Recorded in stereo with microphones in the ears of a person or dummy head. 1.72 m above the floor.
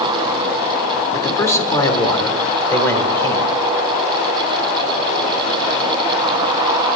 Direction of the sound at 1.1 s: 10° left (ahead or behind).